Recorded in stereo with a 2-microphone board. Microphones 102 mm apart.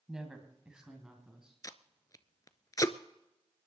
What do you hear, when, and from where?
0.1 s a woman speaking: 5° right (ahead or behind), 1.9 m; by 1.5 s 10° right (ahead or behind), 3 m
1.6 s tape being pulled: 35° left (ahead or behind), 0.7 m